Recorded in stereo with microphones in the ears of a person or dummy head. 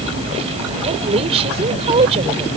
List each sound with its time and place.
0.8 s a woman speaking: 35° right (ahead or behind)